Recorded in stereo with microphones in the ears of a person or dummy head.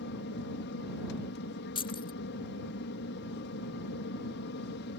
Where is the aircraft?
60° left (ahead or behind).